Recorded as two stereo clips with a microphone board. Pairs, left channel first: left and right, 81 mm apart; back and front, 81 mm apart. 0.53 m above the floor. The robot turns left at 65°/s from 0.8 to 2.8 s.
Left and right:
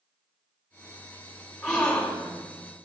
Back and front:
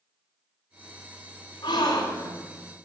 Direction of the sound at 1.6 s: 175° left.